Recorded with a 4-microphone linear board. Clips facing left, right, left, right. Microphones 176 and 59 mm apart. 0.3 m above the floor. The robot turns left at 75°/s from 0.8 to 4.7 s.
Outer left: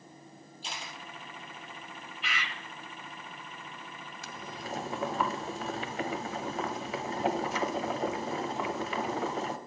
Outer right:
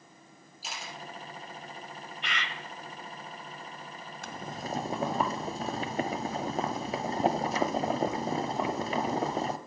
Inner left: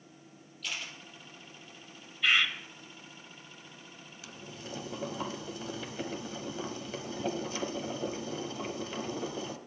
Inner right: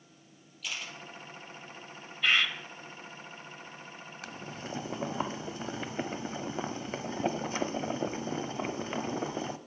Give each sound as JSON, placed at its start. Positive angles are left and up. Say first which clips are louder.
{"t": 0.6, "sound": "a camera shutter", "louder": "outer right 1 dB, even", "side_deg": -5, "distance_m": 3.0}
{"t": 2.2, "sound": "a bird", "louder": "outer right 1 dB, even", "side_deg": 0, "distance_m": 1.3}
{"t": 4.2, "sound": "boiling", "louder": "outer right 4 dB, inner right 4 dB", "azimuth_deg": -100, "distance_m": 0.7}